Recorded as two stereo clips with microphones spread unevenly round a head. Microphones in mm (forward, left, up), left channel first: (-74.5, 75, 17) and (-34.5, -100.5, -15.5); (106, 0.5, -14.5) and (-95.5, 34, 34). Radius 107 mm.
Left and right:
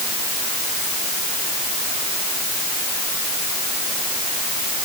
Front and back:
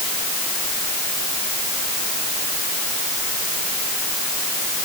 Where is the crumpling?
No crumpling in this recording.